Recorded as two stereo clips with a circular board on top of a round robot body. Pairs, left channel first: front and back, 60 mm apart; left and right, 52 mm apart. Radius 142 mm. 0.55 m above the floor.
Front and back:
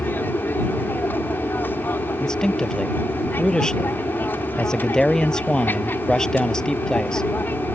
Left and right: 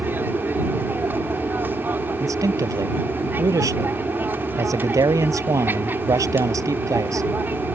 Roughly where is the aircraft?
Ahead right.